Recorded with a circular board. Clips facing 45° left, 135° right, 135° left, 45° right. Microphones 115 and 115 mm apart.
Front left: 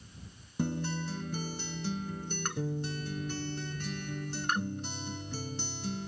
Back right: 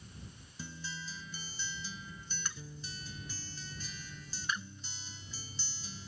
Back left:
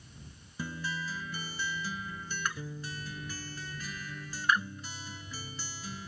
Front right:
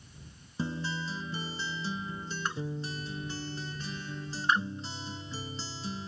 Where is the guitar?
20° left.